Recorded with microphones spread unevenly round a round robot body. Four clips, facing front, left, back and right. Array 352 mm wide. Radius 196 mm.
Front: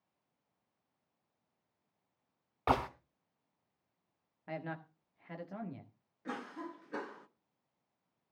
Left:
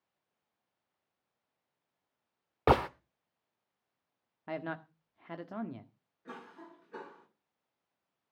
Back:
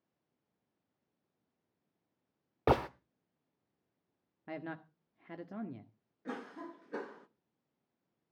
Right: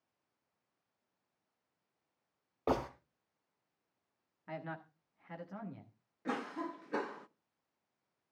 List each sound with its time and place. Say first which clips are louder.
2.7 s a gunshot: left 8 dB, back 2 dB; 115° left, 0.8 m
4.5 s a man speaking: left 6 dB, front 1 dB; 145° left, 1.5 m
6.2 s a cough: right 10 dB, front 1 dB; 75° right, 1.3 m